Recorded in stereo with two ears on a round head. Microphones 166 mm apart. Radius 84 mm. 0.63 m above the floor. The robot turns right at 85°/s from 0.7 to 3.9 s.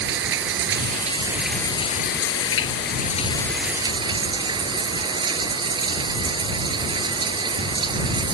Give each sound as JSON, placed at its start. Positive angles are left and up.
{"t": 0.0, "sound": "running water", "azimuth_deg": -65}